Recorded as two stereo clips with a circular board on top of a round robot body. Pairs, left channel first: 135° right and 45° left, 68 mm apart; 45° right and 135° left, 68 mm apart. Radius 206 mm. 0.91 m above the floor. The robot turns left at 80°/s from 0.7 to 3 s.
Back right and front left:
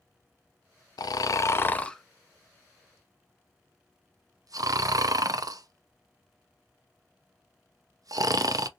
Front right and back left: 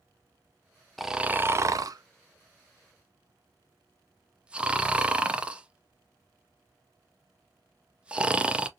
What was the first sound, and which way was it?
Snoring, 135° right.